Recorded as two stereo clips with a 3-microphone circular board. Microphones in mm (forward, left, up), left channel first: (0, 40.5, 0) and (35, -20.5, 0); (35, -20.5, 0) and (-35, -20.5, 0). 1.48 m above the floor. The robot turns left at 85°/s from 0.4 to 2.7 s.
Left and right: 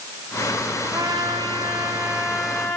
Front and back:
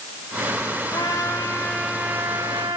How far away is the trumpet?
About 3.5 m.